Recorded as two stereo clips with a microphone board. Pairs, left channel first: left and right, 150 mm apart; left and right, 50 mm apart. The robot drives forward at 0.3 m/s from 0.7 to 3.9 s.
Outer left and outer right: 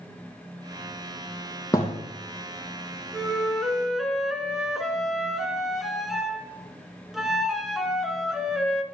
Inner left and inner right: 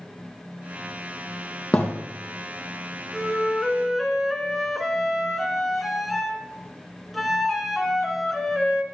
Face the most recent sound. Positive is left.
turn(degrees=0)  # may be behind; listen again after turning